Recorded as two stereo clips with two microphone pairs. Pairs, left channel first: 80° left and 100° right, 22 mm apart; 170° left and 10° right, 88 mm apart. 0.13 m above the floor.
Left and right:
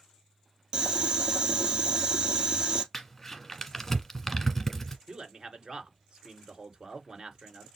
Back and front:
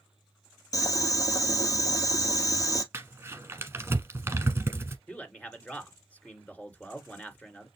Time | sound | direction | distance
0.7 | boiling | 150° right | 1.5 m
2.9 | crumpling | 15° left | 1.2 m
5.1 | a man speaking | 130° right | 2 m